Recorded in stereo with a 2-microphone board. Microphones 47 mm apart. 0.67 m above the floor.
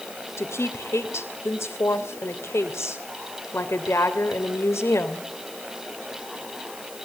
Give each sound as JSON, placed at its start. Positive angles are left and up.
{"t": 0.4, "sound": "a woman speaking", "side_deg": 60, "distance_m": 3.0}